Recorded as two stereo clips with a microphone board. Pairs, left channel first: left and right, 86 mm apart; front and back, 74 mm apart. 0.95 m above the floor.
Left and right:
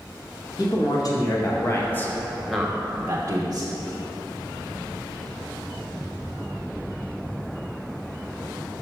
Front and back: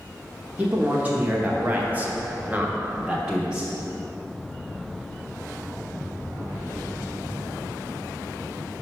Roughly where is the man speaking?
Behind left.